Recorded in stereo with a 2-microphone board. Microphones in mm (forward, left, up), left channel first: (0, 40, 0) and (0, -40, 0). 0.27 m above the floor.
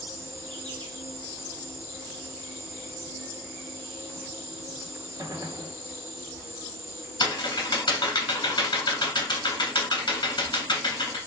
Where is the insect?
70° right (ahead or behind), 0.9 m.